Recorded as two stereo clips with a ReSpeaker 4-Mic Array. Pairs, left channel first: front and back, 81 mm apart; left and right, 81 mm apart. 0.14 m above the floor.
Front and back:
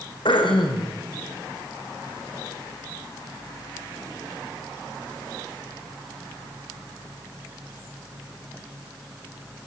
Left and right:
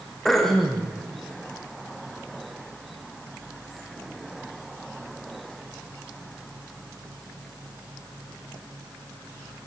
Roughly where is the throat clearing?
Ahead.